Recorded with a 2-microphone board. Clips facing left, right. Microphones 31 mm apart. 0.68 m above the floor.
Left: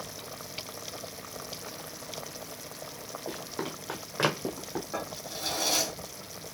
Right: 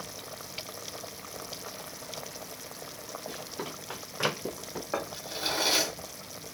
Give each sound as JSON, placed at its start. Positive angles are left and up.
{"t": 3.3, "sound": "running footsteps", "side_deg": 45, "distance_m": 1.8}
{"t": 4.9, "sound": "a drawer", "side_deg": -35, "distance_m": 0.7}